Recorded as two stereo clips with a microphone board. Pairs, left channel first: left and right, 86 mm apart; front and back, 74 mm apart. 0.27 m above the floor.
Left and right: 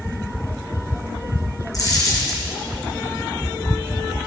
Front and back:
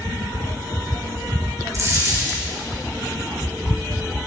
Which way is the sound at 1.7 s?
135° left.